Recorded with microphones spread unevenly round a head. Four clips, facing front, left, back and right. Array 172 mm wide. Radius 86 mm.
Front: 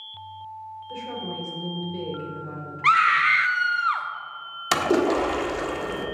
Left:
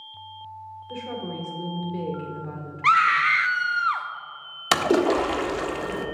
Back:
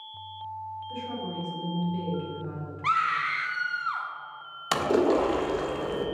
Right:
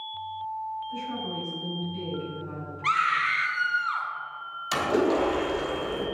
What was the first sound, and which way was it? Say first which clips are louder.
A woman speaking: even, front 3 dB; 90° left.